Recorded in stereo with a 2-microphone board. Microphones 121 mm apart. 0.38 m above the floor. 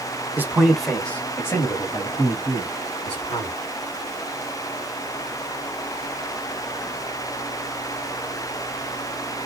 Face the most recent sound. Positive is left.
turn(degrees=40)  # may be behind; listen again after turning